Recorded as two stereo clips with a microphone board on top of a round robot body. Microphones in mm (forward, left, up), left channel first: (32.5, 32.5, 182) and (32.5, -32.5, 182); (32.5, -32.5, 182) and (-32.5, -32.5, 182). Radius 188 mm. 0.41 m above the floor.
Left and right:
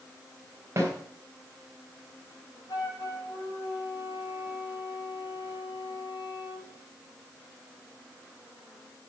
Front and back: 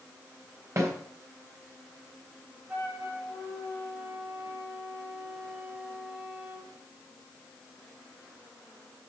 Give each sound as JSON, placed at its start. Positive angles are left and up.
{"t": 0.8, "sound": "a snare drum", "azimuth_deg": -140, "distance_m": 3.5}
{"t": 2.7, "sound": "a flute", "azimuth_deg": 110, "distance_m": 5.5}